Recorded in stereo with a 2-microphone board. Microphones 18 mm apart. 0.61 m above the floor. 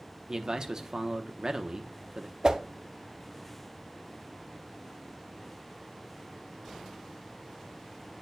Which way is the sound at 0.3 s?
35° right (ahead or behind).